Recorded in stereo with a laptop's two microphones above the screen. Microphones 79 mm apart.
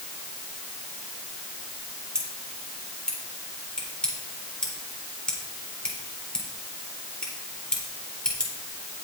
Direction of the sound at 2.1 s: 10° left (ahead or behind).